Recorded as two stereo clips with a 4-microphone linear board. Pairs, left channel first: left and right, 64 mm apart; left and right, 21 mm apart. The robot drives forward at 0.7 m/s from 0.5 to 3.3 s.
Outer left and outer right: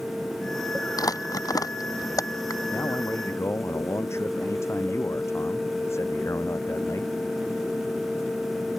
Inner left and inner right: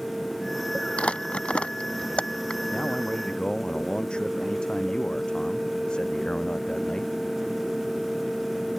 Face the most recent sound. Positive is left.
turn(degrees=45)  # may be behind; listen again after turning